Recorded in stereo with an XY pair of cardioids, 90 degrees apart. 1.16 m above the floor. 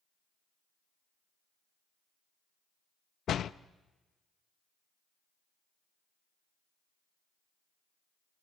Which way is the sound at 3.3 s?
65° left.